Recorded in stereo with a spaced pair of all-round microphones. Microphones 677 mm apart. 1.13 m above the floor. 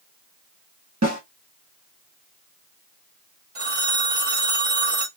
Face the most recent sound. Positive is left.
turn(degrees=-50)  # may be behind; listen again after turning